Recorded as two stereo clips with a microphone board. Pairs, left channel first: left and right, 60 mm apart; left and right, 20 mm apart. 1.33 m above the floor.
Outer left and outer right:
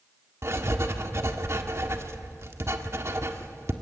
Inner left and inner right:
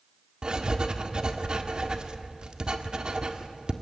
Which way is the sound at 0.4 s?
50° right (ahead or behind).